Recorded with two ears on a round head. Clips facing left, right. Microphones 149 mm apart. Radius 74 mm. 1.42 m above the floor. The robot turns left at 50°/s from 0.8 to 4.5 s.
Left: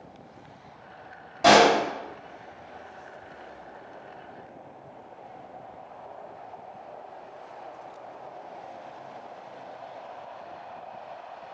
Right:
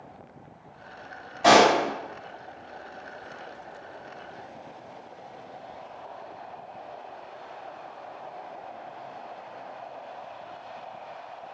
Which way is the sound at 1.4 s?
50° left (ahead or behind).